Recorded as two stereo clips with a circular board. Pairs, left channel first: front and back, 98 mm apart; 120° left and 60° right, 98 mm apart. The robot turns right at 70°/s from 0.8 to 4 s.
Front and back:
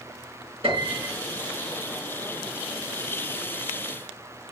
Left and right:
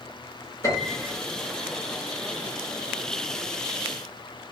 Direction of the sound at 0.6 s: 175° left.